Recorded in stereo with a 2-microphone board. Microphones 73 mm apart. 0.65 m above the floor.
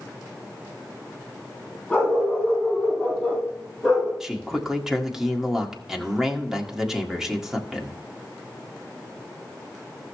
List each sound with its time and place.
1.9 s a dog barking: 10° left (ahead or behind), 6.5 m; by 4.1 s 15° right (ahead or behind), 6 m
4.2 s a man speaking: 5° right (ahead or behind), 1.8 m